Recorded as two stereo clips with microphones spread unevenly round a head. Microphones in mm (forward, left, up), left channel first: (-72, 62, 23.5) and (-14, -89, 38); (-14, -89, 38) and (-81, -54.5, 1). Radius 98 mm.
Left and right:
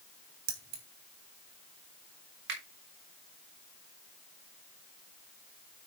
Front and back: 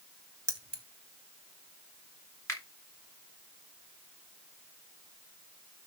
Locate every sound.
0.5 s keys jangling: 95° right, 3 m
2.5 s a finger snap: 75° right, 3.5 m